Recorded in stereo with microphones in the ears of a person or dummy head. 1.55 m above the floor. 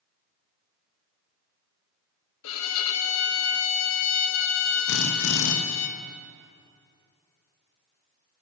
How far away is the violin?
About 1.1 m.